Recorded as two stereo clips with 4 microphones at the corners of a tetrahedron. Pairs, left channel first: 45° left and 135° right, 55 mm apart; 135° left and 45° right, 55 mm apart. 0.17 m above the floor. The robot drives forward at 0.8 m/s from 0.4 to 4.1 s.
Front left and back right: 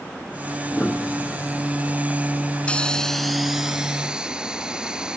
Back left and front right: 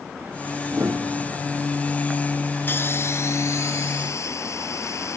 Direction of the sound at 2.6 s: 105° left.